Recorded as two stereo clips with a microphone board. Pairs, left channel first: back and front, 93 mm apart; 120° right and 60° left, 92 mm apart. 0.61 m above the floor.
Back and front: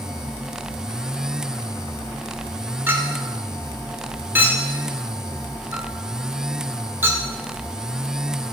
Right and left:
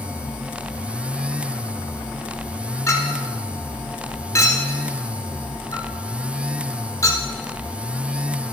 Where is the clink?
65° right, 1.1 m.